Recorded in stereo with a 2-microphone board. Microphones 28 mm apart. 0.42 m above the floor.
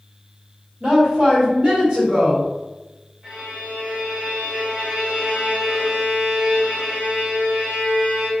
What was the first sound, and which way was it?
A woman speaking, 30° right (ahead or behind).